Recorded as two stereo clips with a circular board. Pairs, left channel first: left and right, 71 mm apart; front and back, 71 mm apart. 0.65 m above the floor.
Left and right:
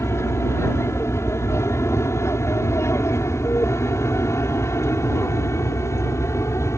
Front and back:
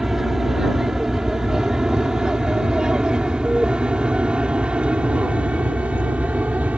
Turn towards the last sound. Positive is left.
turn(degrees=115)